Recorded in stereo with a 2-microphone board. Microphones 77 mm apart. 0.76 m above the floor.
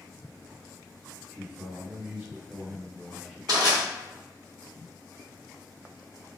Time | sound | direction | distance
1.3 | a man speaking | 20° right (ahead or behind) | 1.6 m
3.5 | crushing | 60° right (ahead or behind) | 1.2 m